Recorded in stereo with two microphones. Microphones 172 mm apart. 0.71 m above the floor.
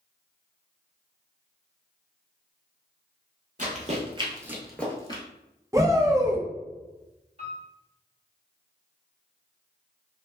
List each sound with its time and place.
3.6 s running footsteps: 50° right (ahead or behind), 1.1 m; by 5.2 s 30° left (ahead or behind), 0.8 m
5.7 s a shout: 20° right (ahead or behind), 0.6 m
7.4 s a piano: 35° right (ahead or behind), 1.5 m